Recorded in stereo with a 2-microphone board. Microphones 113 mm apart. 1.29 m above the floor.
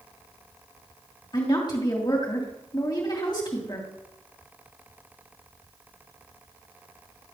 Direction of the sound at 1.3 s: 40° left (ahead or behind).